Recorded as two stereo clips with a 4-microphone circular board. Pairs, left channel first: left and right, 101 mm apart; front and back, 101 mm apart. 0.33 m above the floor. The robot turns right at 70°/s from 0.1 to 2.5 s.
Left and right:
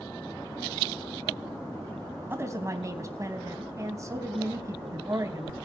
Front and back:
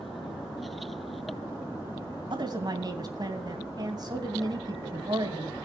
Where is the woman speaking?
155° right, 3 m; by 5.6 s 140° right, 3 m.